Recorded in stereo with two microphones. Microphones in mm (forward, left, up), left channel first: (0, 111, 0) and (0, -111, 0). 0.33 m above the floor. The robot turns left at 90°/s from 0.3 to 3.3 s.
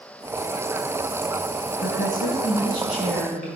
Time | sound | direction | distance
1.7 | a woman speaking | 105° left | 3.5 m